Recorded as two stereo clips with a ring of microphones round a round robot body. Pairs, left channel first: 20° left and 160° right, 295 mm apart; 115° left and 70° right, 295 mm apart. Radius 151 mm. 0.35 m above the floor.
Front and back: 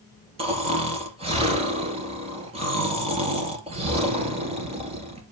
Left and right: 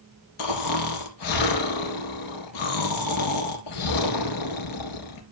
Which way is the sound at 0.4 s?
130° left.